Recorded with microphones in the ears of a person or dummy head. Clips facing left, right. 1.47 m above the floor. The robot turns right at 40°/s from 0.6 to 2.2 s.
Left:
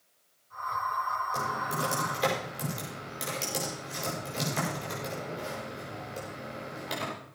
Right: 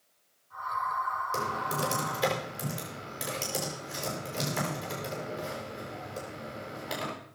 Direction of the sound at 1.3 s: 35° right (ahead or behind).